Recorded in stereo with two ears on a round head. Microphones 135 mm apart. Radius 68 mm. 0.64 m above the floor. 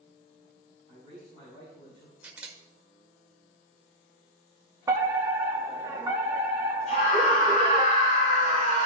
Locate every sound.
0.9 s a man speaking: 40° left (ahead or behind), 5 m
2.2 s a camera shutter: 10° right (ahead or behind), 1.7 m
4.9 s a fire alarm: 20° right (ahead or behind), 1.6 m
6.9 s a scream: 50° left (ahead or behind), 2.5 m